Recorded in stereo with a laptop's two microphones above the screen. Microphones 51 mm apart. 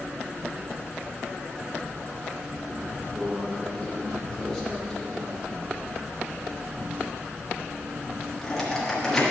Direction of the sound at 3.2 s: 5° left (ahead or behind).